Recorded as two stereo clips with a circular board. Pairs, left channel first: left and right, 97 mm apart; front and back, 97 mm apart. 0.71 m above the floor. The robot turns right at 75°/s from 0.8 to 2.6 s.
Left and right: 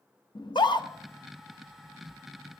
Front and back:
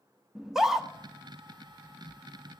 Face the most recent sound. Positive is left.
turn(degrees=-130)